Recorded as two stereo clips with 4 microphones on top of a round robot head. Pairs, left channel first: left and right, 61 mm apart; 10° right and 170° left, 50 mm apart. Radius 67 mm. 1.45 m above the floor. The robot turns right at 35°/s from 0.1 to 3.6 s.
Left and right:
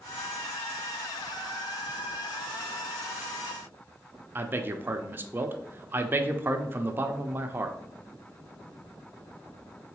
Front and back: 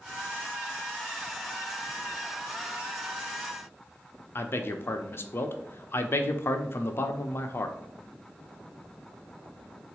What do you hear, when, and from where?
4.3 s a man speaking: 40° right, 0.6 m